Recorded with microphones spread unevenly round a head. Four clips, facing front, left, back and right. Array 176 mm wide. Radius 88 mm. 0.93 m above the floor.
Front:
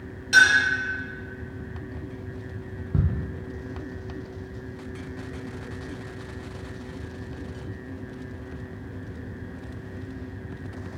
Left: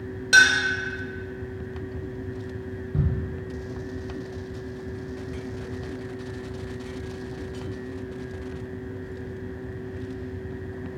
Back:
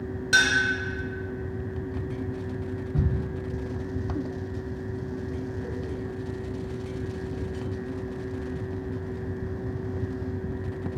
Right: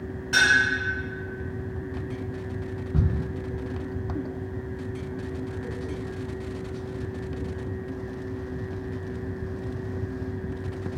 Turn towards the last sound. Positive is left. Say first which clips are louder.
# right 3 dB, front 3 dB
turn(degrees=-10)